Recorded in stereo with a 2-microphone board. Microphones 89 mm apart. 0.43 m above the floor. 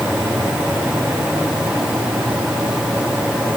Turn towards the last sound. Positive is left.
No sound to turn to.